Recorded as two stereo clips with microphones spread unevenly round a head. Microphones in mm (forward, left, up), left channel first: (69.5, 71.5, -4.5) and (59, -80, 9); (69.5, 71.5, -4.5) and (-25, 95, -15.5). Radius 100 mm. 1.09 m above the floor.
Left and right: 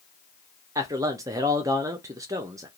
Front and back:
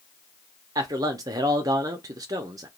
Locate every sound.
0.8 s a man speaking: 165° right, 0.5 m